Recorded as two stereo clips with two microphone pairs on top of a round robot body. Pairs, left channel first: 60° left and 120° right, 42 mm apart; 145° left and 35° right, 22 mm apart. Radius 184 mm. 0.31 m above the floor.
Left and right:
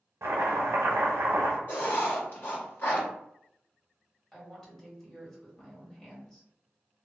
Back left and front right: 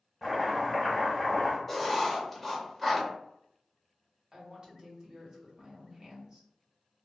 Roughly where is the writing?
Ahead left.